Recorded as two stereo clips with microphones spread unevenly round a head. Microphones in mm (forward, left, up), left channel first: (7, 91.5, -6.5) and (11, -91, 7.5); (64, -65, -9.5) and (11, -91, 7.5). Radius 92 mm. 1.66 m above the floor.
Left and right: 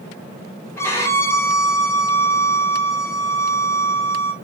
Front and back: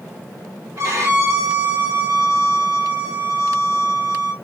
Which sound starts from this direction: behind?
A violin, at 0.8 s.